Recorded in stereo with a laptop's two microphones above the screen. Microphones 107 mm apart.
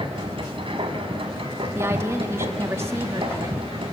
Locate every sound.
0.0 s a machine running: 60° right (ahead or behind), 1.7 m
1.8 s a woman speaking: 25° right (ahead or behind), 1.5 m